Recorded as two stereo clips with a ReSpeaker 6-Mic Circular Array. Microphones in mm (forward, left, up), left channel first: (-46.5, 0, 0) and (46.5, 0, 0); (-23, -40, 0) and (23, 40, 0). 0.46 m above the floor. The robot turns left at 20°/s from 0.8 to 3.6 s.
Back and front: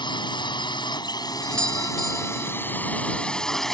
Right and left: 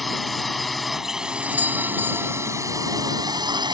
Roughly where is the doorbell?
Left.